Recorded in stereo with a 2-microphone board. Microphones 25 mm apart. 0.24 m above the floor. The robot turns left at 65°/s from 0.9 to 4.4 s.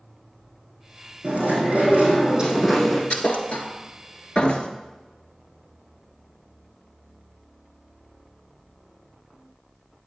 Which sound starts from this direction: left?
A thud, at 3.1 s.